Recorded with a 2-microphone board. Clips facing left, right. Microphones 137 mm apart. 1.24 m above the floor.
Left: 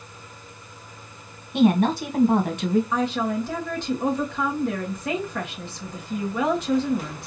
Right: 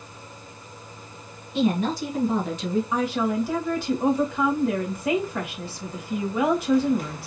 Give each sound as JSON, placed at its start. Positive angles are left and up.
{"t": 1.5, "sound": "a woman speaking", "side_deg": 60, "distance_m": 1.6}
{"t": 2.9, "sound": "a woman speaking", "side_deg": -10, "distance_m": 2.0}